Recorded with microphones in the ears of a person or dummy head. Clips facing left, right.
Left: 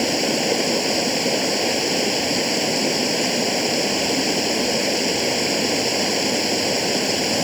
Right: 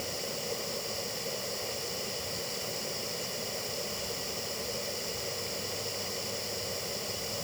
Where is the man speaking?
I don't hear a man speaking.